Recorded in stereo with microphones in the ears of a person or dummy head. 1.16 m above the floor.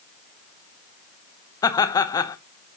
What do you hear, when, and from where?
1.6 s laughter: 25° left (ahead or behind), 0.9 m